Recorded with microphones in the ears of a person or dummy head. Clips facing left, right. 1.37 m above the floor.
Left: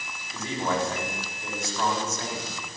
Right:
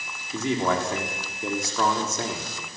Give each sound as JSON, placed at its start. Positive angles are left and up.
{"t": 0.3, "sound": "a man speaking", "side_deg": -55, "distance_m": 4.0}